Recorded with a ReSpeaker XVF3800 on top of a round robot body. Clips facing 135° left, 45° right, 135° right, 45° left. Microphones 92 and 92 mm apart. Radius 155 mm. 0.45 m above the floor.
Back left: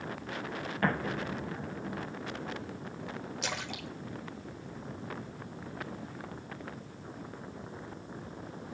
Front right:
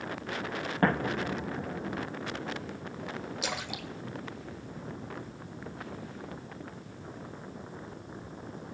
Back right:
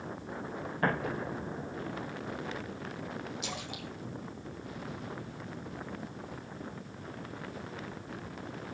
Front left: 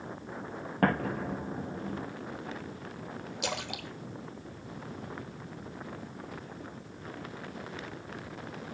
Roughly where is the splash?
Ahead left.